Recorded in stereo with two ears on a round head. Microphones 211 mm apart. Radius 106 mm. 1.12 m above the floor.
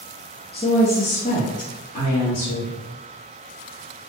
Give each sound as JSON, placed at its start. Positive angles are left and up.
{"t": 0.5, "sound": "a woman speaking", "side_deg": 20, "distance_m": 0.7}